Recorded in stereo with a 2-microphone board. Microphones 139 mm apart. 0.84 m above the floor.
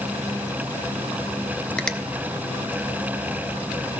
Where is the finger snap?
5° left (ahead or behind), 0.6 m.